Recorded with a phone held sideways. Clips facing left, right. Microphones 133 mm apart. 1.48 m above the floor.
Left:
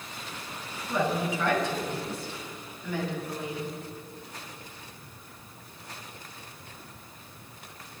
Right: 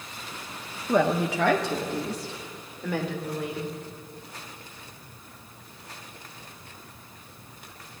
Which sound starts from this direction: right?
A woman speaking, at 0.9 s.